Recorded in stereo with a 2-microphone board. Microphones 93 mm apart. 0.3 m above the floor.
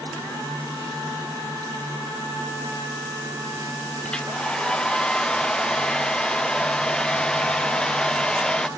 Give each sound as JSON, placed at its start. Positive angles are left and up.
{"t": 4.0, "sound": "a hair dryer", "side_deg": 10}